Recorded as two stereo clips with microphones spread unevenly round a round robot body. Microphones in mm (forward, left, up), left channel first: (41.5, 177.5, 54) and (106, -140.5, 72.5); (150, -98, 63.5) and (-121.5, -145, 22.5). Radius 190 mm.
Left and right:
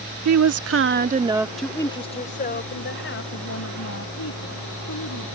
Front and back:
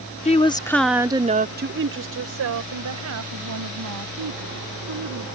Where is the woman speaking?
60° right; by 5.3 s 155° left.